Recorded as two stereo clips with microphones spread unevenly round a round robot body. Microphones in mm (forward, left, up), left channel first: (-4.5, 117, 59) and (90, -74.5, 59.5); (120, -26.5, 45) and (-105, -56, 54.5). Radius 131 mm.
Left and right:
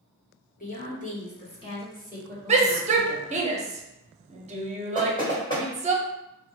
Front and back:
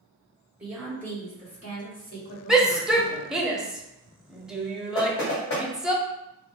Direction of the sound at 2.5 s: 85° right.